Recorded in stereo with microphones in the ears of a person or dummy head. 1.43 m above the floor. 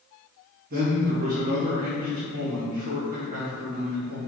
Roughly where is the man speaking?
Right.